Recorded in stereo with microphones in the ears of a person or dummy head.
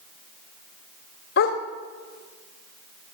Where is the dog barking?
50° left (ahead or behind), 2 m.